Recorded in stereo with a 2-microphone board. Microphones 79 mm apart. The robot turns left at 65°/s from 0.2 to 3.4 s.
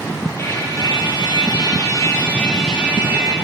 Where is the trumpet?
145° left, 2 m; by 3.3 s 45° right, 2 m.